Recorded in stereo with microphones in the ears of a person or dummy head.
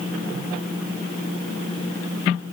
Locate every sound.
Only background noise.